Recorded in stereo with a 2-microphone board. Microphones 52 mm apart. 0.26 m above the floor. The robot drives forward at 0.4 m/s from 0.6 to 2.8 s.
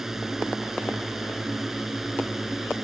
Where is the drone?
5° right (ahead or behind).